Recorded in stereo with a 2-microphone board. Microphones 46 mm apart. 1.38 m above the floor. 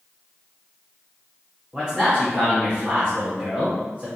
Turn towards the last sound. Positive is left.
turn(degrees=-35)  # may be behind; listen again after turning